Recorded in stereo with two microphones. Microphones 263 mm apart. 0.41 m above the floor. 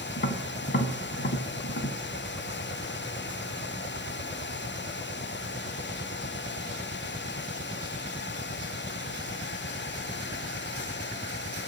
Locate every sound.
0.2 s tapping: 50° left (ahead or behind), 0.6 m